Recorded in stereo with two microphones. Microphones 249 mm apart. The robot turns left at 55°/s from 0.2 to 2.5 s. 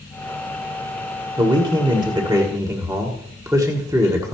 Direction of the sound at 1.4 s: 15° right (ahead or behind).